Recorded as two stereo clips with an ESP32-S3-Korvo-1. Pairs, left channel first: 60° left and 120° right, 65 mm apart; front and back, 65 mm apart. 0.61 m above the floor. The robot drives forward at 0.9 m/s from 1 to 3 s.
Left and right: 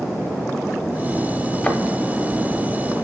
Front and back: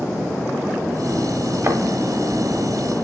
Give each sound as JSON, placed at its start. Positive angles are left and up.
{"t": 1.6, "sound": "a thud", "azimuth_deg": 135, "distance_m": 1.1}